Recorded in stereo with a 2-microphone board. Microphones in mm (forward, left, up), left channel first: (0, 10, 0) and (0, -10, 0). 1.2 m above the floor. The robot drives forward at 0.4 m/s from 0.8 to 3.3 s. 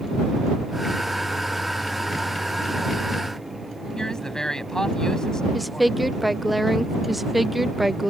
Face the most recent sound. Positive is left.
turn(degrees=-5)  # may be behind; listen again after turning